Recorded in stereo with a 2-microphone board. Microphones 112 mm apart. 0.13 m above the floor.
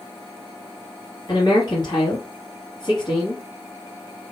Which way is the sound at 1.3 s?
40° left (ahead or behind).